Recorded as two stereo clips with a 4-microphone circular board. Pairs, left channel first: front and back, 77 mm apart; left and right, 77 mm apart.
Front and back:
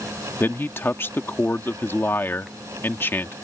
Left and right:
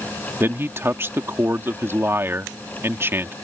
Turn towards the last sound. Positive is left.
turn(degrees=-45)